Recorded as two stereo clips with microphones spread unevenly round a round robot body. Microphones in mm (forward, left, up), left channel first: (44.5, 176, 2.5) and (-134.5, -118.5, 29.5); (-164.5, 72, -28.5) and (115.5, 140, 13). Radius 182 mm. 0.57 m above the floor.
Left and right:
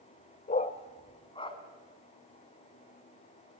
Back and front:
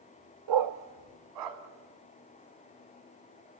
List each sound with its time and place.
0.5 s a dog barking: 15° right, 0.6 m; by 1.6 s 20° right, 2.0 m